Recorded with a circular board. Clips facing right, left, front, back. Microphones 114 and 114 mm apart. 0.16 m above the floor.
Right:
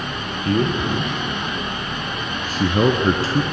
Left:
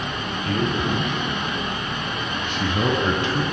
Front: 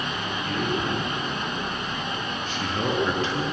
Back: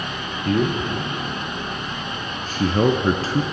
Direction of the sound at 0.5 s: 140° right.